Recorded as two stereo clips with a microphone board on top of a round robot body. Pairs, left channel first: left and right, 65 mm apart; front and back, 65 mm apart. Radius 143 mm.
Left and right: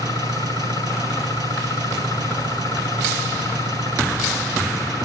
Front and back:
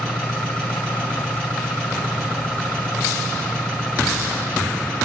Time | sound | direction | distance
0.0 | an engine running | 75° left | 6 m